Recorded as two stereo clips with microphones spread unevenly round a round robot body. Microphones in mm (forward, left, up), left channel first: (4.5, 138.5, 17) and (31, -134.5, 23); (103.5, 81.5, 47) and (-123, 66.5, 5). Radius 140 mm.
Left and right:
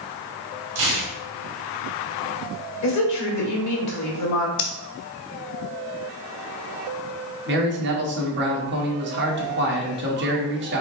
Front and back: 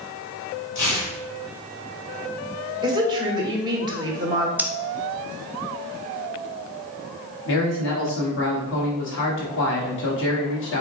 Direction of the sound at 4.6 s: 105° left.